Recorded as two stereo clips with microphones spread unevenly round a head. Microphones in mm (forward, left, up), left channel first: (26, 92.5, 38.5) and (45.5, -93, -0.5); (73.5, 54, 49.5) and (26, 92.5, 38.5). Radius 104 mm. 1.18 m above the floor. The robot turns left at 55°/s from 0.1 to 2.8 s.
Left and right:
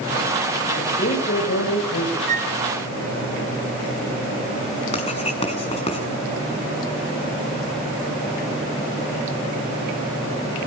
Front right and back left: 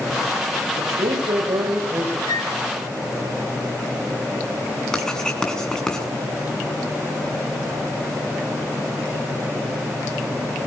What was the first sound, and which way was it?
A woman speaking, 170° left.